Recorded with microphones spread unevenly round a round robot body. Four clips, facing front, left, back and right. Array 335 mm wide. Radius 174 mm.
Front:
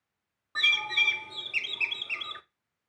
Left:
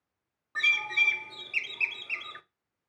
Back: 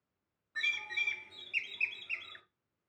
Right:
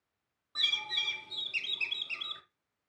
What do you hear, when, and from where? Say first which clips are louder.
0.6 s a bird: left 10 dB, front 9 dB; 15° left, 0.6 m